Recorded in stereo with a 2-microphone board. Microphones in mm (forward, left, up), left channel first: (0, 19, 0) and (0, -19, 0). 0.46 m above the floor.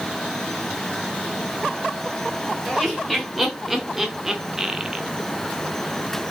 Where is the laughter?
Centre (ahead or behind), 1.9 m; by 5.0 s 20° right (ahead or behind), 0.9 m.